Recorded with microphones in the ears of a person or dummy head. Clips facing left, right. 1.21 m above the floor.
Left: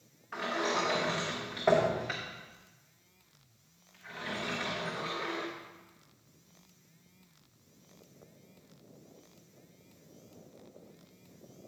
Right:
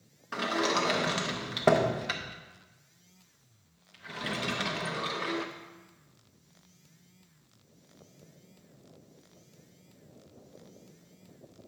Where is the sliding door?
45° right (ahead or behind), 0.6 m.